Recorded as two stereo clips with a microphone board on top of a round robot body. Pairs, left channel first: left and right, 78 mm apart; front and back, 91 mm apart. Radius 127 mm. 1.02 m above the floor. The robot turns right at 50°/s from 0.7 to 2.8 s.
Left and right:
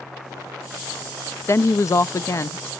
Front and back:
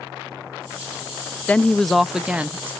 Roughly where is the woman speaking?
Ahead left.